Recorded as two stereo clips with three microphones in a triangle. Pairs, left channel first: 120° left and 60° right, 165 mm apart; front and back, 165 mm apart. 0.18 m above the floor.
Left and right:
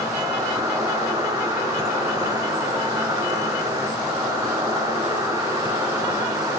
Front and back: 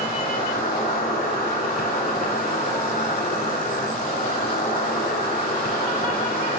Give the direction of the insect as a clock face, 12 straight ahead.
12 o'clock.